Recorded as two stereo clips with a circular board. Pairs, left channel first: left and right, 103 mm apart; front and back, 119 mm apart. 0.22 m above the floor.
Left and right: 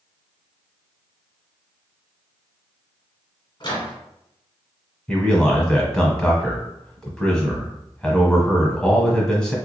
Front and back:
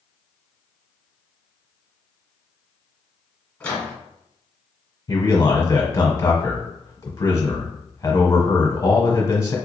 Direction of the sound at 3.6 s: 75° left.